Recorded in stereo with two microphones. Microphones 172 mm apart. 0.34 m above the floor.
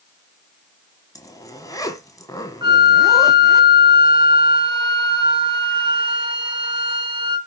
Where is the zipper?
20° left (ahead or behind), 1.6 m.